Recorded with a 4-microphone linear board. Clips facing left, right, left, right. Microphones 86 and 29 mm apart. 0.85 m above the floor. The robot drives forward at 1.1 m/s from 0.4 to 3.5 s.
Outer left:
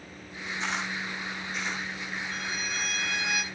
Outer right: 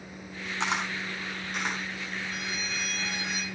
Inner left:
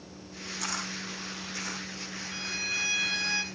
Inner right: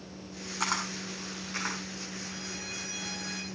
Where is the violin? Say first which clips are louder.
Outer left 1 dB, inner left 7 dB; 40° left (ahead or behind), 2 m; by 3.4 s 75° left (ahead or behind), 1.5 m.